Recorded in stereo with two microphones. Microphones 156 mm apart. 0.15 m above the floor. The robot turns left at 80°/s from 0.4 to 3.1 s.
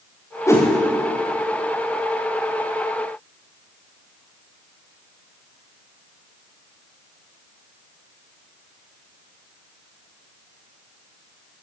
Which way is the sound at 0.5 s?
20° left (ahead or behind).